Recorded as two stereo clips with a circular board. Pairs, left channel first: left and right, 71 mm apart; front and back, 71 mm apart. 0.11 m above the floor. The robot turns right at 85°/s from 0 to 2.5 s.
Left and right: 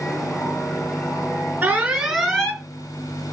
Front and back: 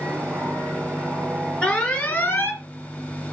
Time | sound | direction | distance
1.6 | an alarm | 55° right | 2.5 m